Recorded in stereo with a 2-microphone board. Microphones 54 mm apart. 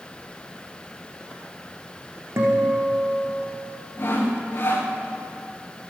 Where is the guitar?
55° right (ahead or behind), 6 m.